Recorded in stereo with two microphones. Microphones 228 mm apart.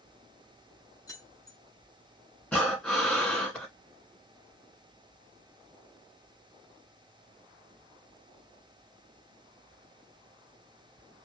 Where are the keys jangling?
15° left (ahead or behind), 0.8 m.